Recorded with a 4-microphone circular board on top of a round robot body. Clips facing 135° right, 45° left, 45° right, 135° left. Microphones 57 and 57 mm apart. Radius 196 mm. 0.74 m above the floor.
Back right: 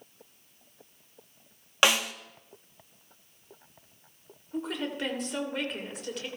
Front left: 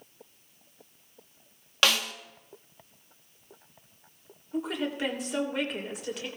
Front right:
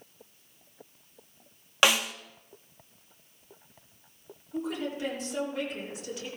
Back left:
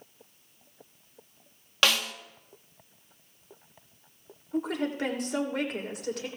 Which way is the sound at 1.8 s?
95° right.